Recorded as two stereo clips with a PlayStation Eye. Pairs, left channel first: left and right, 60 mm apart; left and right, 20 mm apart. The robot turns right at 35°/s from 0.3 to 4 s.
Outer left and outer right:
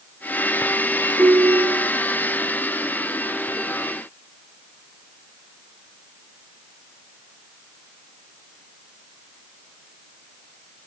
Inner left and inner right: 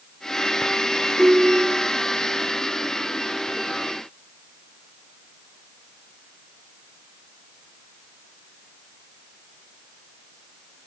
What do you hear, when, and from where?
1.2 s a ringtone: 65° right (ahead or behind), 2.5 m; by 1.9 s 80° right, 2.5 m